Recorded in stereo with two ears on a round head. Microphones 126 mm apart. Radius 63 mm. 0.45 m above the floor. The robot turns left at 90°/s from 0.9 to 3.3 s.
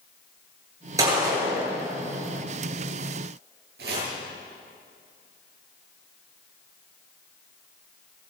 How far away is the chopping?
About 9.5 m.